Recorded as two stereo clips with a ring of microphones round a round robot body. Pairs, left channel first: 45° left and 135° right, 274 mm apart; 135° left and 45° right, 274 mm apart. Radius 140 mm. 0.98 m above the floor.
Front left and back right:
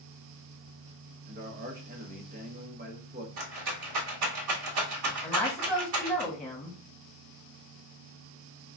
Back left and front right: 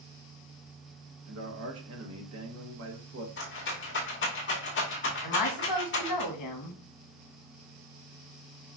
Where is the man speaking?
80° right, 0.9 m.